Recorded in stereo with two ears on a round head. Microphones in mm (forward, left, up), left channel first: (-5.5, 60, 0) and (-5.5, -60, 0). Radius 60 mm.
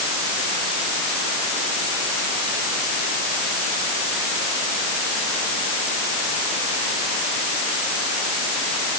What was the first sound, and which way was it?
Only background noise.